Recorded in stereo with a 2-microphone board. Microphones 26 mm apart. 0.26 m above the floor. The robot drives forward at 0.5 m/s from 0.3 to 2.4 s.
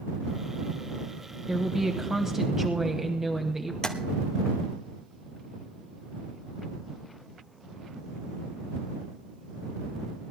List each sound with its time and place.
1.5 s a woman speaking: 20° right (ahead or behind), 1.0 m
3.8 s tapping: 30° left (ahead or behind), 1.3 m